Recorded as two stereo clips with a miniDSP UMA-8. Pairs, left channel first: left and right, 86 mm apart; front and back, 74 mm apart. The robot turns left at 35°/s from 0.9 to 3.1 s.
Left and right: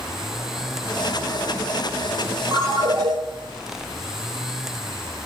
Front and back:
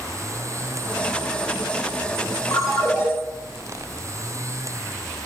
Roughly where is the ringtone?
Ahead right.